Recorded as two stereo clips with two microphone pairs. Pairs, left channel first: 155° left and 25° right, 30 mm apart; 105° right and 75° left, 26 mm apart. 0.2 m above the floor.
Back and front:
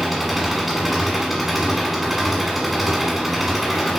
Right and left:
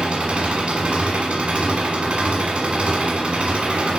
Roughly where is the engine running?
Ahead left.